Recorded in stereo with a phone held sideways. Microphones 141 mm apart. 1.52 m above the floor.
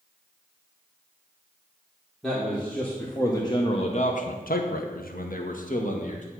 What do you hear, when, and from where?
2.2 s a man speaking: centre (ahead or behind), 1.5 m; by 6.2 s 55° left (ahead or behind), 1.7 m